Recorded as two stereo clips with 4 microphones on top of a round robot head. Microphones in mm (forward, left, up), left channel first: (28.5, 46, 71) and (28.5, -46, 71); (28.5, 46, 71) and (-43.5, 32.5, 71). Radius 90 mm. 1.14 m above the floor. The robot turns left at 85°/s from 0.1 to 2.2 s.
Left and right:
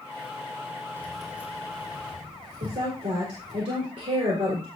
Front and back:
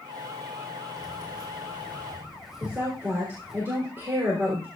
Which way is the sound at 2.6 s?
110° right.